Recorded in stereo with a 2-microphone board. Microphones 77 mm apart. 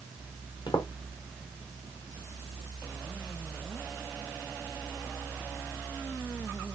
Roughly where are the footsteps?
Left.